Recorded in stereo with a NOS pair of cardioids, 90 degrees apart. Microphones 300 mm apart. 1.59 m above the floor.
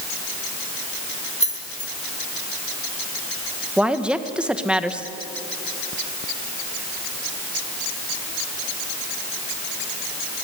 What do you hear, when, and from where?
1.4 s keys jangling: 25° left, 3.5 m
3.8 s a woman speaking: 5° right, 1.7 m